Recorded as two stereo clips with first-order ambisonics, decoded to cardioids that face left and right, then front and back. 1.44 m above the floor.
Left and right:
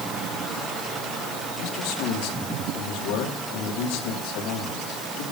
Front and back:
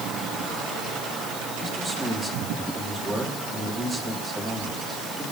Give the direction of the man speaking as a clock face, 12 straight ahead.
8 o'clock.